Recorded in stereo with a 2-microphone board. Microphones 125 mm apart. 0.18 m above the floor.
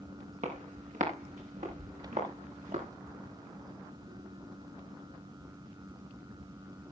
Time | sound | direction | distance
0.4 | footsteps | 75° right (ahead or behind) | 7.5 m